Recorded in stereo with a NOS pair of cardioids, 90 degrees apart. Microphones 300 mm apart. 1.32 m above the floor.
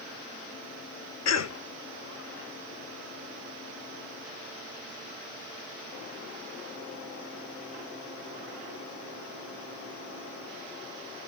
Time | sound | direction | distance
1.2 | a cough | 60° left | 1.3 m